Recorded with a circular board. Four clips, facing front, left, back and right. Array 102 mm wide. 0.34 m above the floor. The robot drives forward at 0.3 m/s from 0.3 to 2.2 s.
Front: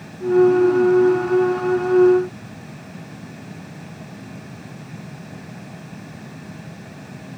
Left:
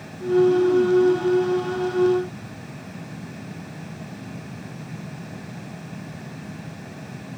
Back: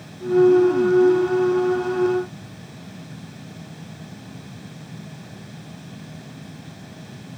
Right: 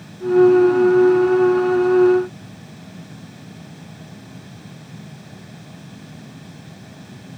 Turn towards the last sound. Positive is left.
No sound to turn to.